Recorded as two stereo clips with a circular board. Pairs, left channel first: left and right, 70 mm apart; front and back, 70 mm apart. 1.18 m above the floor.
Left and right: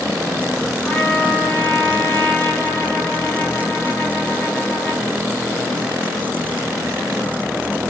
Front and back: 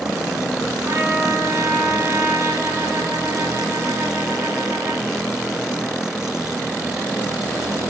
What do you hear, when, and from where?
0.8 s a trumpet: 140° left, 1.1 m